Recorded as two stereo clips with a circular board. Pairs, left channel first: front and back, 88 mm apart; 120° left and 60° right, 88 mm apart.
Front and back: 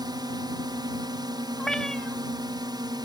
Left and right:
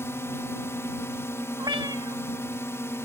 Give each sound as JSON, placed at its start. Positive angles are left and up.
{"t": 0.0, "sound": "a drone", "azimuth_deg": 175}
{"t": 1.6, "sound": "a cat meowing", "azimuth_deg": -80}